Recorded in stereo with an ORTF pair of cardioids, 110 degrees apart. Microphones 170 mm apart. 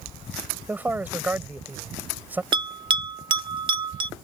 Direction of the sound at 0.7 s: 10° right.